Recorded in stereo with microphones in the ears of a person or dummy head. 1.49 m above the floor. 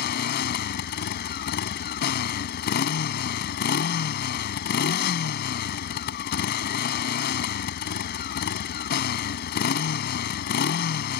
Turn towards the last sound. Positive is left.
turn(degrees=65)  # may be behind; listen again after turning